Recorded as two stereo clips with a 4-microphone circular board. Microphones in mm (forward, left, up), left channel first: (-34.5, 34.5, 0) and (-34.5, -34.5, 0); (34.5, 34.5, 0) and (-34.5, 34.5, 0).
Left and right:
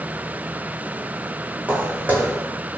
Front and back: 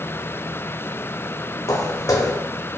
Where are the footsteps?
25° right, 0.7 m.